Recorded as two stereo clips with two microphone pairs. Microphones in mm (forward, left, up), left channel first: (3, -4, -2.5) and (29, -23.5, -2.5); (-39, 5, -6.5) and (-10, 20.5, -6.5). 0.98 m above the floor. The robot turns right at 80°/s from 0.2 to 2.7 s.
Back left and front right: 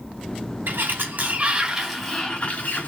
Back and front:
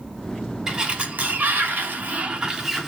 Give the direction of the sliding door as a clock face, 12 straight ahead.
2 o'clock.